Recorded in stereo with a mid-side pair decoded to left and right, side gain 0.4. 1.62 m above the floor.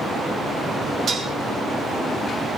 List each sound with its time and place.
1.1 s dishes clattering: 65° right, 2 m